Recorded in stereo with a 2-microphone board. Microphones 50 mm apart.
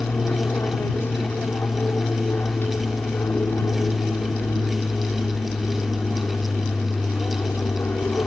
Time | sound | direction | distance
0.0 | an aircraft | 50° left (ahead or behind) | ?